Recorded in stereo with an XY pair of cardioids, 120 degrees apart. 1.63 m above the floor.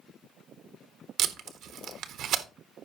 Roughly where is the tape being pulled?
Right.